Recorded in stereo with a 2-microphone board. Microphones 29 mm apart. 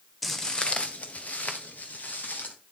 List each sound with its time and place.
0.2 s footsteps: centre (ahead or behind), 0.7 m; by 2.5 s 70° left (ahead or behind), 2.5 m